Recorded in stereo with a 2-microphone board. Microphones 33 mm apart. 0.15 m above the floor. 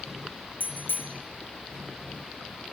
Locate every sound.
0.6 s a bicycle bell: 65° left (ahead or behind), 3 m